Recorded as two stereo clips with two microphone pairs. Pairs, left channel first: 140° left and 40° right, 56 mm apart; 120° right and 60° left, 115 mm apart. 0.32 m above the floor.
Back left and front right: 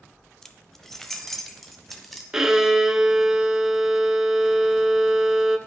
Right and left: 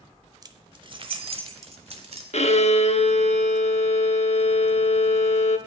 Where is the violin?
120° right, 0.5 m.